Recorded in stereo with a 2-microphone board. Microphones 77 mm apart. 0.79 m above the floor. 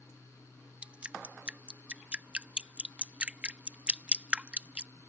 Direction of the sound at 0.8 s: 15° right (ahead or behind).